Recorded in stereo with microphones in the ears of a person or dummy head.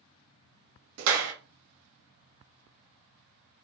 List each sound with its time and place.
1.0 s a clap: 85° right, 0.8 m